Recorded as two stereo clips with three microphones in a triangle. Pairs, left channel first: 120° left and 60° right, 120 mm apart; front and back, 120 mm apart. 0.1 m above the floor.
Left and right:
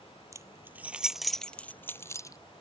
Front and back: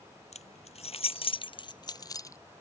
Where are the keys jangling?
Straight ahead; by 2.4 s 60° left.